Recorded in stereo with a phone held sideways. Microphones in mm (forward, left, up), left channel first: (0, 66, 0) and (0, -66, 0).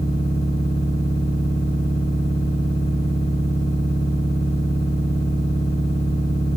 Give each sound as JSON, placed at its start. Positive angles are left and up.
{"t": 0.0, "sound": "a machine running", "side_deg": 45, "distance_m": 1.5}